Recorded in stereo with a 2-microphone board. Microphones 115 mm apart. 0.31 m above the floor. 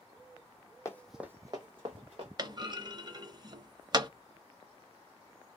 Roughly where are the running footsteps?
Left.